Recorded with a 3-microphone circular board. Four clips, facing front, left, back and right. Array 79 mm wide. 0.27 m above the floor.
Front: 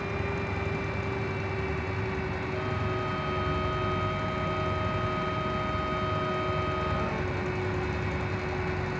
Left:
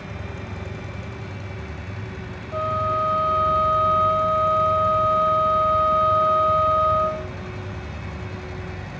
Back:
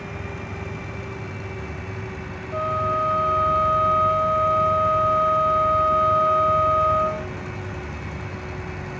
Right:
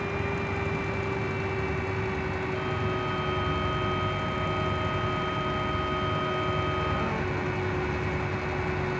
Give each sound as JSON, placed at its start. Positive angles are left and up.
{"t": 2.5, "sound": "a flute", "azimuth_deg": 135}